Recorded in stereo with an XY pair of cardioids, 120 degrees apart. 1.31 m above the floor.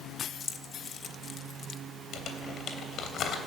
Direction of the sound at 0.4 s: 45° left.